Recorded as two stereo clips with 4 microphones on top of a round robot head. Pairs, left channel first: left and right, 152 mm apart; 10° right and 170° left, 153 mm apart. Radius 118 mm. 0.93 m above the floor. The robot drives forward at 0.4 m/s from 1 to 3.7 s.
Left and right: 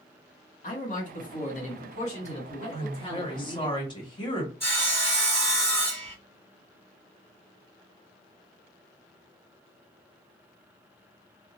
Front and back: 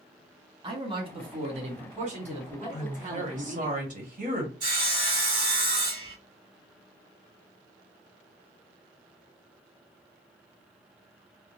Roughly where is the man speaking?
Behind left.